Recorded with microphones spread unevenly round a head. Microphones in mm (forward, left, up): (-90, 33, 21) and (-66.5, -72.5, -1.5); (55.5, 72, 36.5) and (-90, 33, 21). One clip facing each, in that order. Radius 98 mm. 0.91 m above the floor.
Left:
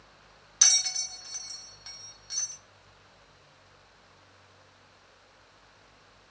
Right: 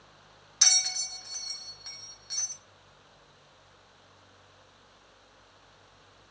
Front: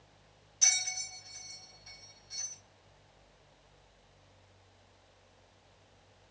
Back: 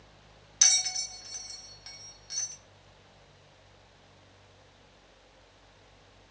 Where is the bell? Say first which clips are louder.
Right 1 dB, back 3 dB; 170° right, 0.7 m.